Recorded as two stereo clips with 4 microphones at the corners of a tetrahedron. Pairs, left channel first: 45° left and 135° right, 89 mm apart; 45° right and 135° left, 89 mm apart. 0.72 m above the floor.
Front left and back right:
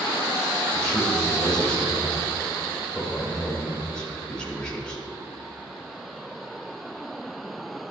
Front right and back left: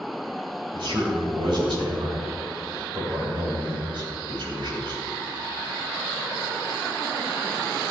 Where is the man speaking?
125° left, 4 m.